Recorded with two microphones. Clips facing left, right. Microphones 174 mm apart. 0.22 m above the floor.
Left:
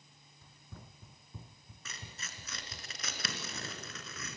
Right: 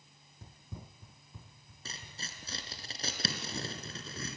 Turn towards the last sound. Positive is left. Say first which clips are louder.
# right 2 dB
turn(degrees=-30)  # may be behind; listen again after turning